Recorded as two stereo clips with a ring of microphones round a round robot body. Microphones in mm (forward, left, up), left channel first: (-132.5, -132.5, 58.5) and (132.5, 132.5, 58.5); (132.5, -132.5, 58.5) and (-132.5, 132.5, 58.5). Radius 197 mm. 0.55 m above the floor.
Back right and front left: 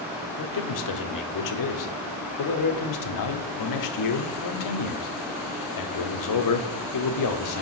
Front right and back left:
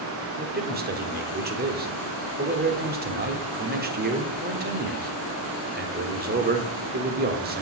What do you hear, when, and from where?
0.4 s a man speaking: 160° right, 1.3 m